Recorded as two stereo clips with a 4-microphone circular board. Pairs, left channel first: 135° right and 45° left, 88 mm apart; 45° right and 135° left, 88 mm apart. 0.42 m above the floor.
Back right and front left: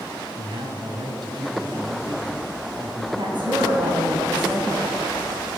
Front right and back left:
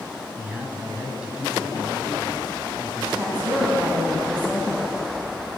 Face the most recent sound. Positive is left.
turn(degrees=60)